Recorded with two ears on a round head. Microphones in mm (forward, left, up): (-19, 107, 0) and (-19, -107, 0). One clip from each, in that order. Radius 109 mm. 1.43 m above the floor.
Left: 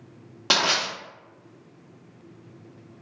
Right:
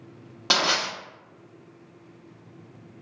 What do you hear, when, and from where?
0.5 s crushing: centre (ahead or behind), 0.8 m